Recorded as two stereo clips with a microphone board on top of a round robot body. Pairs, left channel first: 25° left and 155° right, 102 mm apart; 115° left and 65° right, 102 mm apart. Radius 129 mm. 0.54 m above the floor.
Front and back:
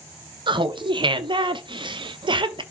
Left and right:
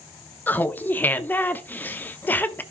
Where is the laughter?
Straight behind, 1.0 m.